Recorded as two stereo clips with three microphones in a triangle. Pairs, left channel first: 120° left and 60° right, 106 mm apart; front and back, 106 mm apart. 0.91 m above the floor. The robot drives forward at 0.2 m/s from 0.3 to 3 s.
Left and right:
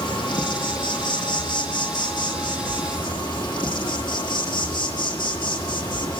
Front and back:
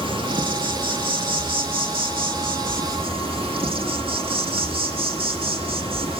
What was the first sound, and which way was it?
An insect, 155° left.